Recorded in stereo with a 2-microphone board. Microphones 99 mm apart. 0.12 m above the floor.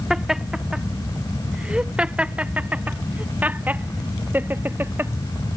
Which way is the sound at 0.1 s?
5° right (ahead or behind).